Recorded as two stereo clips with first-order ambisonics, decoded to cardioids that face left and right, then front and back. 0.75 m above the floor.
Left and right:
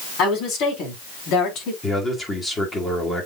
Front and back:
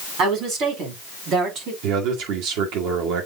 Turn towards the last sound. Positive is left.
turn(degrees=165)